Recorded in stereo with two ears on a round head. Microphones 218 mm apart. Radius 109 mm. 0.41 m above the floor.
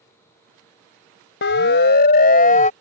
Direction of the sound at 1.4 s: 50° left (ahead or behind).